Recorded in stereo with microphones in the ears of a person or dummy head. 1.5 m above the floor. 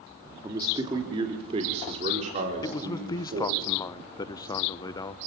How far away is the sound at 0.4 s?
About 2.5 m.